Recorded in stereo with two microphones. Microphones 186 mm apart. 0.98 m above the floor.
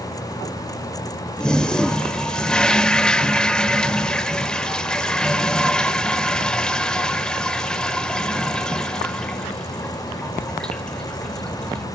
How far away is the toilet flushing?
About 0.7 m.